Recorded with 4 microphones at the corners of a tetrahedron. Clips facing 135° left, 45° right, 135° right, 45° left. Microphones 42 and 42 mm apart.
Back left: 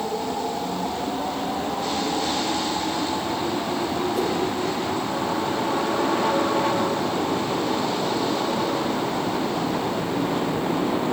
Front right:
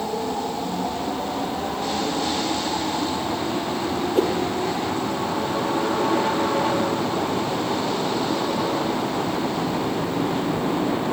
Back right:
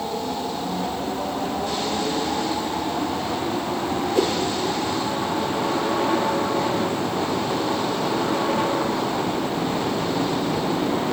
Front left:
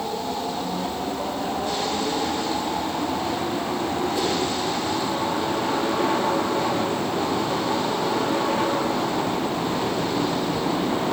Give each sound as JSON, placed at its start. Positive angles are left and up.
{"t": 4.2, "sound": "a whoosh", "azimuth_deg": -90, "distance_m": 3.0}